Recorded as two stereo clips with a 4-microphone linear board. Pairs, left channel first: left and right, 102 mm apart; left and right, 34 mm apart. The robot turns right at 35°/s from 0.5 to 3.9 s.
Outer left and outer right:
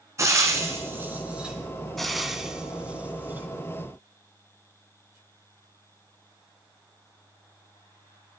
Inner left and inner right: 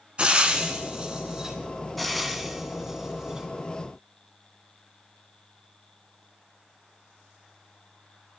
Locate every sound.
0.2 s frying: 30° right (ahead or behind), 1.7 m; by 1.6 s 10° right (ahead or behind), 1.7 m
2.0 s frying: centre (ahead or behind), 1.0 m; by 3.5 s 20° right (ahead or behind), 1.0 m